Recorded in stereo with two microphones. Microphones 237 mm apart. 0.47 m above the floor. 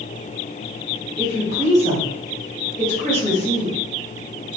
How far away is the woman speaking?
About 1.9 m.